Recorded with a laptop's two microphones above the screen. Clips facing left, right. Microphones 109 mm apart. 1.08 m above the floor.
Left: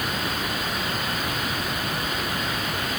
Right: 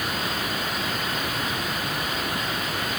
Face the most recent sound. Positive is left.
No sound to turn to.